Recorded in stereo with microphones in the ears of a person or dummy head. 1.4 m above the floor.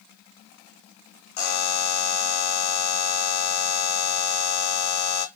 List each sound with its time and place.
1.4 s a buzzer: 55° left (ahead or behind), 0.6 m